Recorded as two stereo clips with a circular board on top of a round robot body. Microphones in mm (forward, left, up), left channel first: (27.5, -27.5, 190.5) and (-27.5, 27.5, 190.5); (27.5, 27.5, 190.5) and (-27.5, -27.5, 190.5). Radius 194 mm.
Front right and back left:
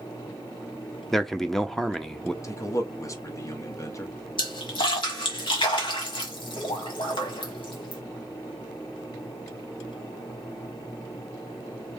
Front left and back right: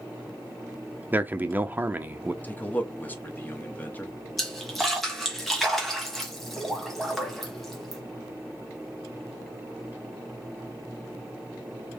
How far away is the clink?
I don't hear a clink.